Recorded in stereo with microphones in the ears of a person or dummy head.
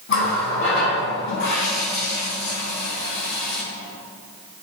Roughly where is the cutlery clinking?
I don't hear cutlery clinking.